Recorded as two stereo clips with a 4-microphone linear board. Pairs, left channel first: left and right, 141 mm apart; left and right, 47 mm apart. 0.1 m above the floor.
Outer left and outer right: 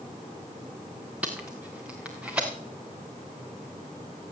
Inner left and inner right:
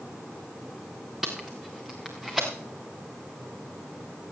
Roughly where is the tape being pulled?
Centre.